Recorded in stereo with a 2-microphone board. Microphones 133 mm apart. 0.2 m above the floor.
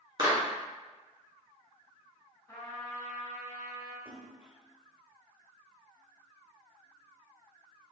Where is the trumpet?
20° left (ahead or behind), 1.5 m.